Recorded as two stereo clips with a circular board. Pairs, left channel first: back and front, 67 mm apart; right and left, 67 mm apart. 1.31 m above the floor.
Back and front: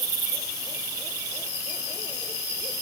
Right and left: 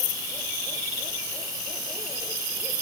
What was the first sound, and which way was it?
Only background noise.